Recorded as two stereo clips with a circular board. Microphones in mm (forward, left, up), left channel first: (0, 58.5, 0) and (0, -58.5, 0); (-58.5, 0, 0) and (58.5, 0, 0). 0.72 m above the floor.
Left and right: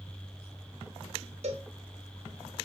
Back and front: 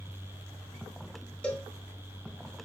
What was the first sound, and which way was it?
A cowbell, 100° right.